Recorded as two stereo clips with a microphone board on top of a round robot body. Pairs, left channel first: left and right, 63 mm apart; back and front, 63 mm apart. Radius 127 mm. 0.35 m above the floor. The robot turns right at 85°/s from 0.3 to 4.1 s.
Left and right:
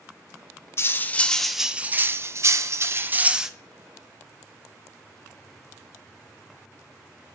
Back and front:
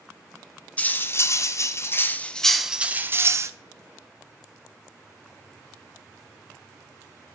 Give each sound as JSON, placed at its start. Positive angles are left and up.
{"t": 0.8, "sound": "cutlery clinking", "azimuth_deg": 120, "distance_m": 0.6}